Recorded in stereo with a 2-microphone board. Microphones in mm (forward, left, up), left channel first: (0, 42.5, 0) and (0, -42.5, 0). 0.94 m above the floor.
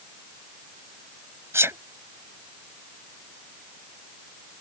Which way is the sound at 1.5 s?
30° right (ahead or behind).